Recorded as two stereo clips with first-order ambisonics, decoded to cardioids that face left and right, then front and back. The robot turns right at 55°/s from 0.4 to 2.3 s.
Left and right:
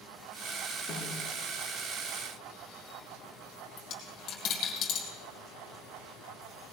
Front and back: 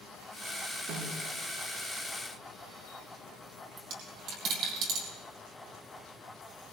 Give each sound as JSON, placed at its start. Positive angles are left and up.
{"t": 0.9, "sound": "a snare drum", "azimuth_deg": 140, "distance_m": 7.5}
{"t": 3.8, "sound": "a dropped coin", "azimuth_deg": 135, "distance_m": 4.0}